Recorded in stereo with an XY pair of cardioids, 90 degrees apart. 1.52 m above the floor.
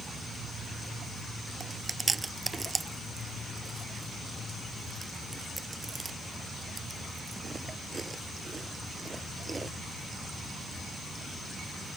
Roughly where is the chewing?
Ahead right.